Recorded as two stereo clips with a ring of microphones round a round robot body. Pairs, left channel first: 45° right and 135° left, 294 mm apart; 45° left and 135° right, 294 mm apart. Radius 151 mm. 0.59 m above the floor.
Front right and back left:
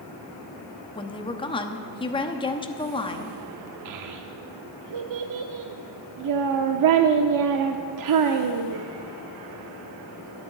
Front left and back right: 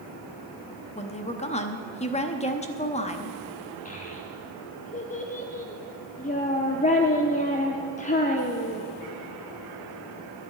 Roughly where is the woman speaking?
Ahead.